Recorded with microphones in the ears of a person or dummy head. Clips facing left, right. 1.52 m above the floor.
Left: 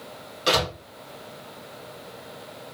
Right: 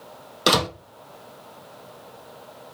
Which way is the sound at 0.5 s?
60° right (ahead or behind).